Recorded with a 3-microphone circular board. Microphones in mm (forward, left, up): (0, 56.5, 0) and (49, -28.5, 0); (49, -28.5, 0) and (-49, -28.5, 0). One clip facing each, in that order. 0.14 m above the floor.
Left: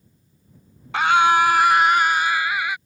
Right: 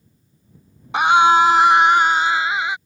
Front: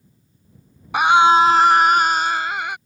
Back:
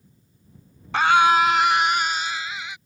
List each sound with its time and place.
0.9 s a scream: 45° right; by 2.8 s 5° left